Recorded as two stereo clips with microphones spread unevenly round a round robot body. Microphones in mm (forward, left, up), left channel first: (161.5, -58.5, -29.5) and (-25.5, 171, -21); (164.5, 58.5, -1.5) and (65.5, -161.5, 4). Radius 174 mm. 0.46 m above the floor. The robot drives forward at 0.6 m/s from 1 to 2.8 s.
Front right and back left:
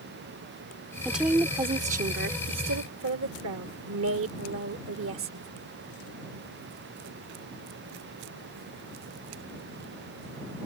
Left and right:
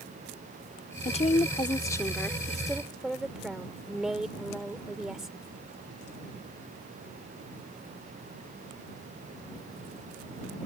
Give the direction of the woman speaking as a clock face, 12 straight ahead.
11 o'clock.